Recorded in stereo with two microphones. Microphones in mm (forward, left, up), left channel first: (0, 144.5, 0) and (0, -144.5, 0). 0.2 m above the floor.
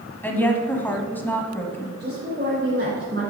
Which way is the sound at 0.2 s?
5° left (ahead or behind).